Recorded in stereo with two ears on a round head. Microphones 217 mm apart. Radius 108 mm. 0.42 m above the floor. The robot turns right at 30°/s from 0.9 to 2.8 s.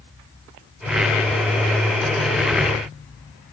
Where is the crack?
I don't hear a crack.